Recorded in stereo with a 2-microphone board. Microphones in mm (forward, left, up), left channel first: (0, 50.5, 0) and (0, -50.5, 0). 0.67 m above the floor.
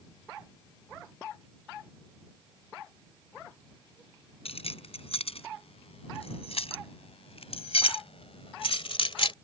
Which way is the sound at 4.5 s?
80° left.